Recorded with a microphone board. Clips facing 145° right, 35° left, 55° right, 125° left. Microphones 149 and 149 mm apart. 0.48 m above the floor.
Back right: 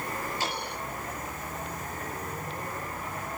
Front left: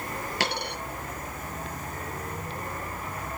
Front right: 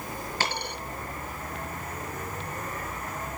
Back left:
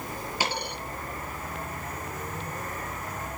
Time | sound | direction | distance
0.4 | a dropped coin | 45° left | 6 m